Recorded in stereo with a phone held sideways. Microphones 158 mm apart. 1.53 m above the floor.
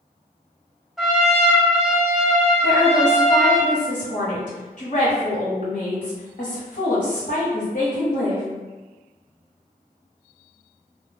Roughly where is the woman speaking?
Left.